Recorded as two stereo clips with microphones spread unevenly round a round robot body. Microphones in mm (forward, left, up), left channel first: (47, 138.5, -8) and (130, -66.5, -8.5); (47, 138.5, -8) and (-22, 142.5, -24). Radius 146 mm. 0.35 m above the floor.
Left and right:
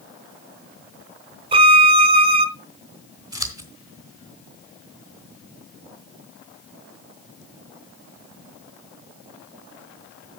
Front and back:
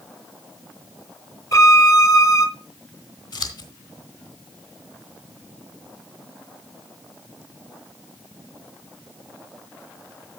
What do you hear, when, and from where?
1.5 s a violin: 40° right, 0.8 m
3.3 s scissors: 5° left, 3 m